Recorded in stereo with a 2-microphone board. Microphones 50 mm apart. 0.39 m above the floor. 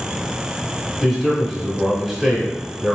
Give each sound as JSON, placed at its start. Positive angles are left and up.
{"t": 1.0, "sound": "a man speaking", "side_deg": -5, "distance_m": 1.1}